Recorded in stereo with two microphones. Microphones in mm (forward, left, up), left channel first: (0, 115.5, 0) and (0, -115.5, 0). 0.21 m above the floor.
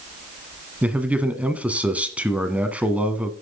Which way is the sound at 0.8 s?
5° right (ahead or behind).